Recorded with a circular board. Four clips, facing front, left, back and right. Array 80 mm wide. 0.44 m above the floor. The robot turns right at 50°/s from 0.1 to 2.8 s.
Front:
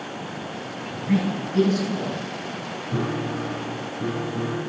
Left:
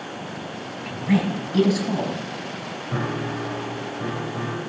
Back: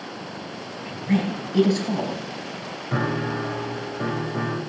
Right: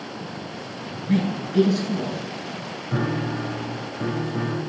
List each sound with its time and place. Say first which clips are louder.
0.8 s a woman speaking: left 1 dB, even; 70° left, 3 m; by 2.2 s 140° left, 3 m
2.9 s a piano: right 2 dB, back 2 dB; 175° left, 2.5 m